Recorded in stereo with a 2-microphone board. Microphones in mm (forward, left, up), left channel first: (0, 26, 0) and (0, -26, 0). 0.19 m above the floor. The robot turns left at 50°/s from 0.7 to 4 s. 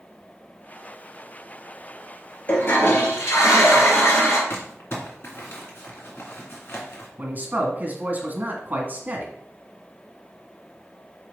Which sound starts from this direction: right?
A man speaking, at 7.2 s.